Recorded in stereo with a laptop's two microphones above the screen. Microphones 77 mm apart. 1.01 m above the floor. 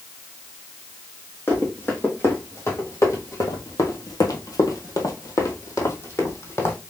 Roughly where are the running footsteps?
Left.